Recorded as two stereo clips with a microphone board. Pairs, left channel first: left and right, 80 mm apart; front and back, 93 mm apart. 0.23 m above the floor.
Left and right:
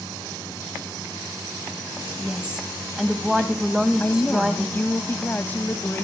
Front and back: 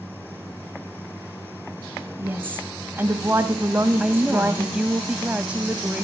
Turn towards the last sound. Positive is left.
turn(degrees=120)